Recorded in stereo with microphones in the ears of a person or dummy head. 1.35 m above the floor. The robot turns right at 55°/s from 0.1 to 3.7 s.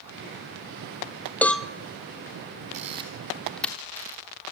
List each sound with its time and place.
1.4 s a cowbell: 5° left (ahead or behind), 0.6 m; by 1.7 s 5° right (ahead or behind), 0.6 m
2.7 s a camera shutter: 45° right (ahead or behind), 3 m; by 4.2 s 5° left (ahead or behind), 3 m